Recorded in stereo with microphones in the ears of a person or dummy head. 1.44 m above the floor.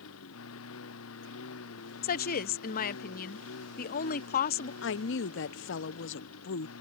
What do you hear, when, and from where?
0.0 s a lawn mower: 85° left; by 6.8 s 90° left
2.0 s a woman speaking: 50° left (ahead or behind)
4.8 s a woman speaking: 65° left (ahead or behind)